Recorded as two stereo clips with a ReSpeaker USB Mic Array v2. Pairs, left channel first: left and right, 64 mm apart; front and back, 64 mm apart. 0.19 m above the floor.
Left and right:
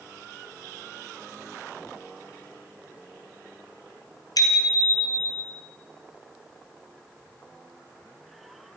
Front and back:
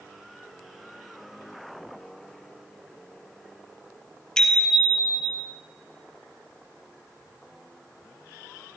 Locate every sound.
4.4 s a bicycle bell: 80° left, 3.5 m; by 5.4 s 85° left, 2.5 m